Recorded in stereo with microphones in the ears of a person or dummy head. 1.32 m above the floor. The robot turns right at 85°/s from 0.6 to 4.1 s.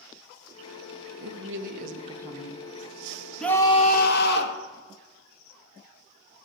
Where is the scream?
5° left, 1.6 m; by 4.6 s 65° left, 1.6 m.